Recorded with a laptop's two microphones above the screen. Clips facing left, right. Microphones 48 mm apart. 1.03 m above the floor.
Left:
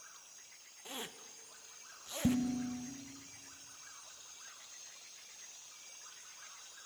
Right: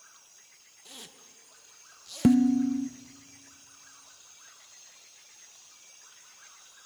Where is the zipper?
30° left (ahead or behind), 0.8 m.